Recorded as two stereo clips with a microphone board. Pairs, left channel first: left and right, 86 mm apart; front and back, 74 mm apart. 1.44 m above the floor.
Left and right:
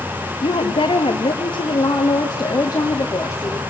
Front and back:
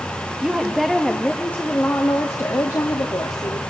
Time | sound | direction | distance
0.4 | a woman speaking | 100° left | 1.8 m